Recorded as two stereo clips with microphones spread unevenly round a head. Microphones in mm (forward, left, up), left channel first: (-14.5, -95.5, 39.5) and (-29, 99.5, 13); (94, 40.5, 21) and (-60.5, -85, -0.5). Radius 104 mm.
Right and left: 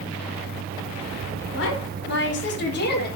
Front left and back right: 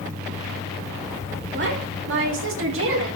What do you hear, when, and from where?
1.5 s a woman speaking: 110° right, 4.5 m; by 3.2 s 125° right, 4 m